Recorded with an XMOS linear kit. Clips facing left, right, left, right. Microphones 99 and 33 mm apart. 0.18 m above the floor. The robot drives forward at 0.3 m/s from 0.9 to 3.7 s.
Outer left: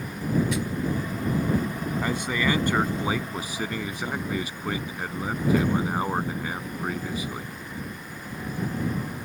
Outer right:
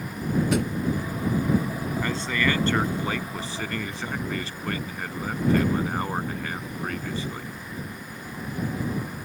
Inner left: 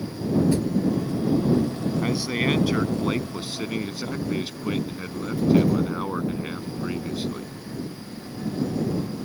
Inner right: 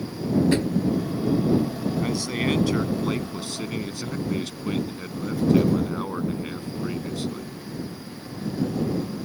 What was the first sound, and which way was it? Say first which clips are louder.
A drawer: outer right 4 dB, inner right 1 dB; 60° right (ahead or behind).